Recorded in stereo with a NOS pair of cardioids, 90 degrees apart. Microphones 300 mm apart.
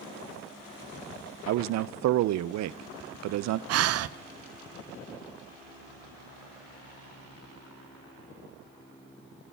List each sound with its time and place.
1.5 s a man speaking: 65° right, 0.6 m
3.7 s breathing: 55° right, 0.6 m